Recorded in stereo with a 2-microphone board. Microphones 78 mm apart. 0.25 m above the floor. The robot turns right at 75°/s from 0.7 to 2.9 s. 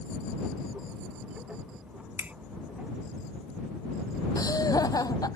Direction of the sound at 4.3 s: 50° left (ahead or behind).